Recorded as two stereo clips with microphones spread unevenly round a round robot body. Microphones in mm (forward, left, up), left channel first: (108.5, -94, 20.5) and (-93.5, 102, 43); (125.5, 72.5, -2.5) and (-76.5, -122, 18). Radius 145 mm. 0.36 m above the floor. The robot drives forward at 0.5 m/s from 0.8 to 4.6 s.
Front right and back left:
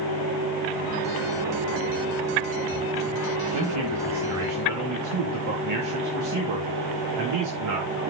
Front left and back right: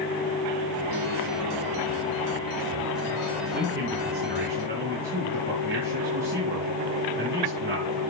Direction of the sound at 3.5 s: 160° left.